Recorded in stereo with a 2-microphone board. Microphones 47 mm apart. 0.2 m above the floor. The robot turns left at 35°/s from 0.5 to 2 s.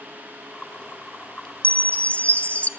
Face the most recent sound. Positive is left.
turn(degrees=35)  # may be behind; listen again after turning